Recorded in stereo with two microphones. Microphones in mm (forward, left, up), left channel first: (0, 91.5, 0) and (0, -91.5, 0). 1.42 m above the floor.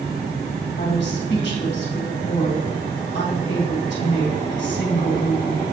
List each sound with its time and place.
0.8 s a woman speaking: 75° left (ahead or behind), 1.7 m